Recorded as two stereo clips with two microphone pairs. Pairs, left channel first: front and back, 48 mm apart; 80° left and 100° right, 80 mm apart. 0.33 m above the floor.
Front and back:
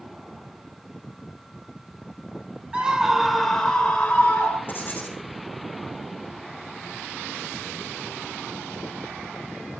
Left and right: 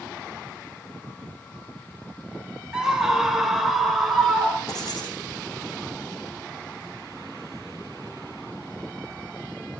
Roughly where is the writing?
Ahead left.